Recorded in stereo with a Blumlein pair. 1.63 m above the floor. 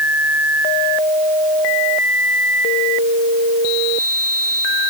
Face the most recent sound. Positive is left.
No sound to turn to.